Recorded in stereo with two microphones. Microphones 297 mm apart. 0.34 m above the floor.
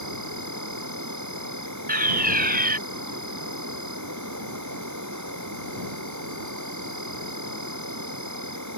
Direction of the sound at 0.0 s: 70° right (ahead or behind).